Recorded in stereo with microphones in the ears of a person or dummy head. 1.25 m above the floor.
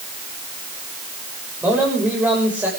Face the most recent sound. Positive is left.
turn(degrees=-5)  # may be behind; listen again after turning